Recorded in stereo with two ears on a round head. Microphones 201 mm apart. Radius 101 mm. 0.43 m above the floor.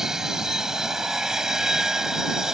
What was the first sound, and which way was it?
An aircraft, 5° right (ahead or behind).